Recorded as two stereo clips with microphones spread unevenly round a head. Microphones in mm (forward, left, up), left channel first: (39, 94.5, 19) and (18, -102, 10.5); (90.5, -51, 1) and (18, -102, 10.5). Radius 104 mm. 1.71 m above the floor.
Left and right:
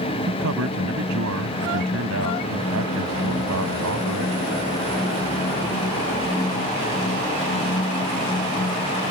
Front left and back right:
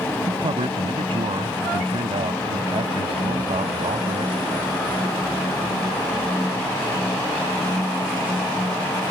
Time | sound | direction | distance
0.3 | a man speaking | 125° right | ?